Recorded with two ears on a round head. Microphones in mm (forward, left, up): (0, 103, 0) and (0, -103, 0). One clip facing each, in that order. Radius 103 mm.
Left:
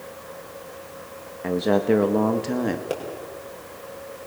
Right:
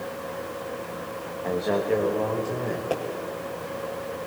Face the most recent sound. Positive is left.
turn(degrees=25)  # may be behind; listen again after turning